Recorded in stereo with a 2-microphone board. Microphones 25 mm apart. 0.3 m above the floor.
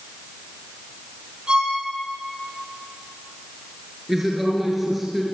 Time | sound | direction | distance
1.5 | a violin | 35° right (ahead or behind) | 9.5 m
4.1 | a woman speaking | 10° right (ahead or behind) | 5.5 m